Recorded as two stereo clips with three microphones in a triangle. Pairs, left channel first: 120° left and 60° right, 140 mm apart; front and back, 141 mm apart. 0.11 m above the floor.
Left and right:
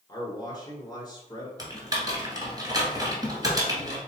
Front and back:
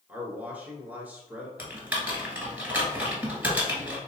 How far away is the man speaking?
About 1.1 m.